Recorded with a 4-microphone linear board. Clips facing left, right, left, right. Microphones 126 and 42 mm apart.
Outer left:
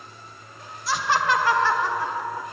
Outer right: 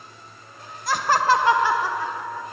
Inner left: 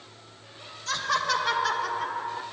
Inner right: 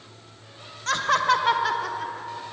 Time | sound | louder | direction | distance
0.9 | laughter | outer right 3 dB, inner right 5 dB | 50° right (ahead or behind) | 1.3 m